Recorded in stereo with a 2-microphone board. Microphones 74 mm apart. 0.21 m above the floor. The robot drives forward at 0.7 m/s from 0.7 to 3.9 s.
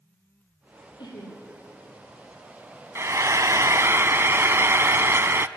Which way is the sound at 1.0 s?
80° left.